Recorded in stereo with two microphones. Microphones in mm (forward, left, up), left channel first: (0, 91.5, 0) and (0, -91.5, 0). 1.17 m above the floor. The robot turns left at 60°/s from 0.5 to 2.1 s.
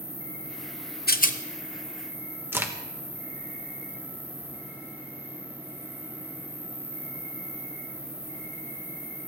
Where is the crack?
15° right (ahead or behind), 1.2 m.